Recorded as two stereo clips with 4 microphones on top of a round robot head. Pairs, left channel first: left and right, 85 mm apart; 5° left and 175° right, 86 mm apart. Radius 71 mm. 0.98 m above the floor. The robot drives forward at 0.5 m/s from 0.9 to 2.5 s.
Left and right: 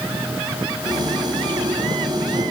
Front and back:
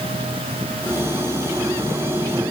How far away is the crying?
I don't hear crying.